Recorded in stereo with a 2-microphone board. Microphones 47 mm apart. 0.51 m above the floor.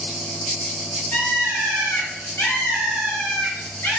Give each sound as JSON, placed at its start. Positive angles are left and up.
{"t": 1.1, "sound": "a bird", "side_deg": 55, "distance_m": 1.7}